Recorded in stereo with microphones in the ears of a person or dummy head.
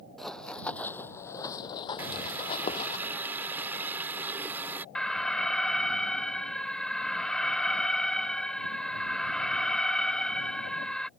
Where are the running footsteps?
Centre (ahead or behind); by 3.0 s 40° left (ahead or behind).